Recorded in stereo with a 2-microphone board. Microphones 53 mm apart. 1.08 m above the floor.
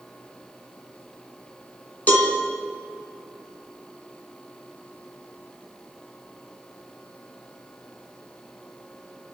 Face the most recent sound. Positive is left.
turn(degrees=30)  # may be behind; listen again after turning